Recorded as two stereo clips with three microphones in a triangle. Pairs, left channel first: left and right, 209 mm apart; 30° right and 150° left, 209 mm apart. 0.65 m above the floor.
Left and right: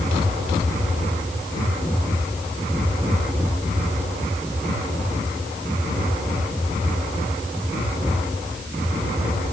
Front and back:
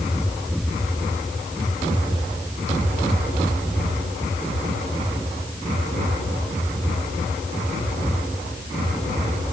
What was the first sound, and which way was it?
Only background noise.